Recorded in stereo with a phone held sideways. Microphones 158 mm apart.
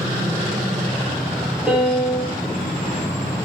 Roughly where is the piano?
Centre.